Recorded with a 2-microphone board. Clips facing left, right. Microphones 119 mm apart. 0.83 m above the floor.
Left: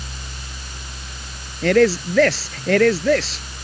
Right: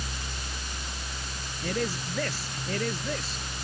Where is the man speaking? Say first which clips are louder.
Left 16 dB; 85° left.